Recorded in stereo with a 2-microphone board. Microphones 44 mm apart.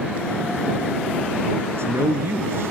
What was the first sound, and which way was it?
A man speaking, 70° right (ahead or behind).